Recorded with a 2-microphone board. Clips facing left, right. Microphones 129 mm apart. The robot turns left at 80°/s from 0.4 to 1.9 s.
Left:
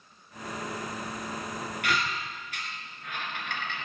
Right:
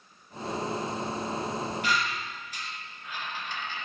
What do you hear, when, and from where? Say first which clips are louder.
1.8 s a squeak: right 1 dB; 75° left (ahead or behind), 1.7 m; by 3.9 s 70° left (ahead or behind), 1.7 m